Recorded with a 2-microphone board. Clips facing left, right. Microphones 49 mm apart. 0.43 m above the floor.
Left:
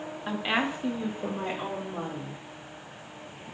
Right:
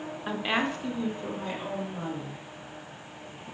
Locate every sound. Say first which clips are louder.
0.3 s a woman speaking: even; 5° right (ahead or behind), 0.9 m; by 2.4 s 35° left (ahead or behind), 2 m